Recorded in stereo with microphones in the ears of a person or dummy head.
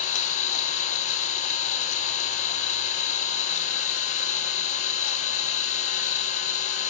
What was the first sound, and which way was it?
An engine running, 45° left (ahead or behind).